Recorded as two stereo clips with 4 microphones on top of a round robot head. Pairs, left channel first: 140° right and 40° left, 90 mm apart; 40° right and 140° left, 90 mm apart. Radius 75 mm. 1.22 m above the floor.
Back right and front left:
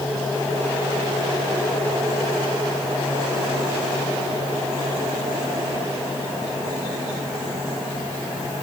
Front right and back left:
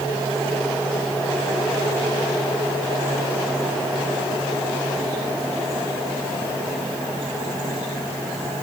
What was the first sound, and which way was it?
Only background noise.